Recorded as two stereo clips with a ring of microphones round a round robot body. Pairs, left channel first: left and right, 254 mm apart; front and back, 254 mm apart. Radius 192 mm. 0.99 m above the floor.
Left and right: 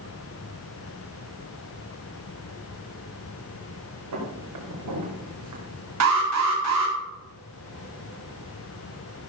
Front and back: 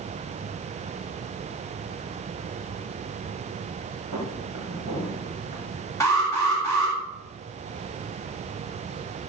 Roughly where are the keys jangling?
I don't hear keys jangling.